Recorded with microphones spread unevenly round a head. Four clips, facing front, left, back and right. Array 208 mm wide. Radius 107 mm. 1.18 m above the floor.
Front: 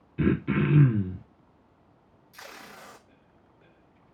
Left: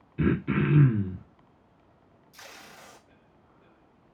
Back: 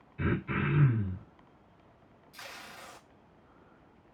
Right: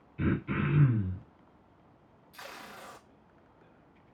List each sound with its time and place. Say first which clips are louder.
0.2 s throat clearing: left 5 dB, front 7 dB; 40° left, 0.7 m
2.3 s tape being pulled: right 3 dB, front 2 dB; 25° right, 0.7 m